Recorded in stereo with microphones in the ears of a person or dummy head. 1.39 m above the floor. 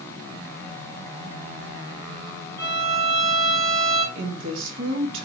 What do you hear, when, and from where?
2.6 s a violin: 15° left (ahead or behind), 3 m
4.2 s a woman speaking: 80° right, 2.5 m